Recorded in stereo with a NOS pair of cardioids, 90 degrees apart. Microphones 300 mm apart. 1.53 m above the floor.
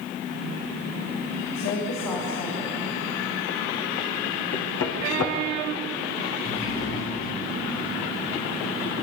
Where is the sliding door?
45° left, 8.5 m.